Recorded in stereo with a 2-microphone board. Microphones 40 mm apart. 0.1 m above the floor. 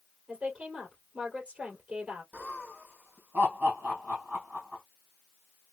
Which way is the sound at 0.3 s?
30° right (ahead or behind).